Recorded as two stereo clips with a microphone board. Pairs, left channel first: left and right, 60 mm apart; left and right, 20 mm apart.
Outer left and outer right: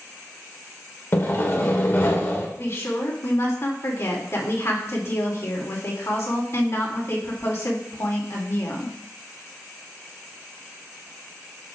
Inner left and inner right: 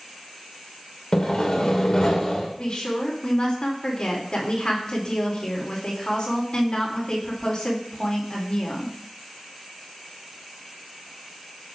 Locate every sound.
1.1 s sawing: 40° left (ahead or behind), 1.5 m
2.6 s a woman speaking: 50° left (ahead or behind), 2.5 m